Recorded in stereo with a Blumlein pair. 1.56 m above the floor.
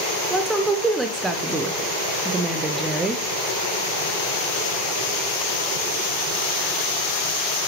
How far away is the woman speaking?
About 0.9 m.